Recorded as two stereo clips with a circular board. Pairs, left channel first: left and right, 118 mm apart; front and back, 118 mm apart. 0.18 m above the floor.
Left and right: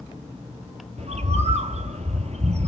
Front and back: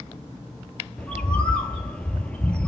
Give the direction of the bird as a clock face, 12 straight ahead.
3 o'clock.